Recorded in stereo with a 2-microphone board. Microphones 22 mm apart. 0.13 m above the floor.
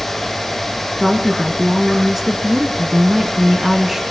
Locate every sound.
1.0 s a woman speaking: 15° right (ahead or behind), 1.5 m